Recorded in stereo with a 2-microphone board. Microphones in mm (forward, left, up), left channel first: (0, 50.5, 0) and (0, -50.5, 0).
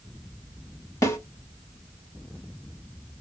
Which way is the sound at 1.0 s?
30° left (ahead or behind).